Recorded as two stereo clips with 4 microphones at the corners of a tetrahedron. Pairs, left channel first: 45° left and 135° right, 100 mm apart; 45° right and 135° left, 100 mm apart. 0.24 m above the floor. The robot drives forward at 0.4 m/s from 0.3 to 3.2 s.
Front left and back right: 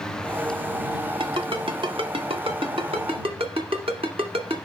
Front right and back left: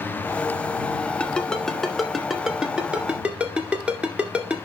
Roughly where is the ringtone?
Behind right.